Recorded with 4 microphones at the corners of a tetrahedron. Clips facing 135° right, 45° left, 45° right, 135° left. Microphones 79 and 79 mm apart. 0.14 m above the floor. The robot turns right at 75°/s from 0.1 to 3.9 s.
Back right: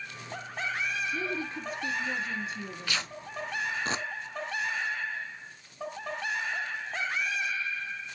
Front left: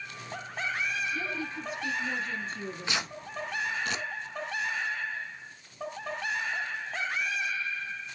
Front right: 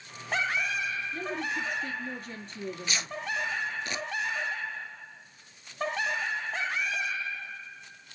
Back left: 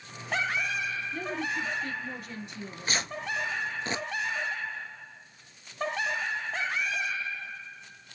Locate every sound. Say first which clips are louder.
1.1 s a woman speaking: back right 1 dB, back left 2 dB; 160° right, 1.6 m; by 3.2 s 5° right, 1.6 m
2.5 s tearing paper: front left 2 dB, back left 1 dB; 75° left, 0.6 m; by 4.0 s straight behind, 0.6 m